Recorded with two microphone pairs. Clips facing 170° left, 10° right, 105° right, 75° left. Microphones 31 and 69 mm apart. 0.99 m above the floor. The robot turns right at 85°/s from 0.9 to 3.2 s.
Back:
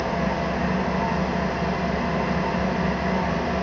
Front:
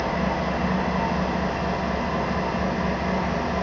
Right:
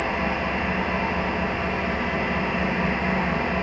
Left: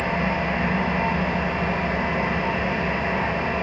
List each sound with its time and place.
0.0 s an engine running: 35° left, 1.4 m; by 3.6 s 130° right, 1.4 m